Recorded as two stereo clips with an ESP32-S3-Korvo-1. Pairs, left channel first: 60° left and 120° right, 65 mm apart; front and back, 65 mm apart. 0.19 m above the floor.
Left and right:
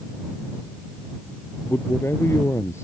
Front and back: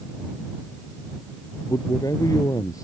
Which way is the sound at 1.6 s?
10° left.